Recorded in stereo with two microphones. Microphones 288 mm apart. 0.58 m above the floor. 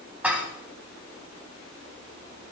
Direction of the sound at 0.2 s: 5° right (ahead or behind).